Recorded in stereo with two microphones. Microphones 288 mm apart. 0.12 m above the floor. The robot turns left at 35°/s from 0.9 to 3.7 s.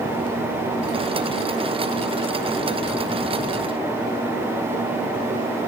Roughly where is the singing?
No singing in this recording.